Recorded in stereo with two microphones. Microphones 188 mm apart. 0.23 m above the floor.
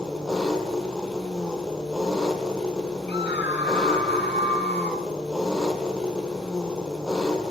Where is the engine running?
5° left (ahead or behind), 2 m.